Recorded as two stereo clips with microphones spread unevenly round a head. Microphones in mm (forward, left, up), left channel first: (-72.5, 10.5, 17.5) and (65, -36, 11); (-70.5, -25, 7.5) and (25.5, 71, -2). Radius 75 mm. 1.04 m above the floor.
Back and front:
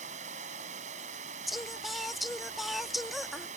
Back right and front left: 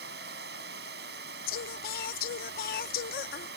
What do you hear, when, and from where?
0.0 s running water: 30° left
1.5 s singing: 110° right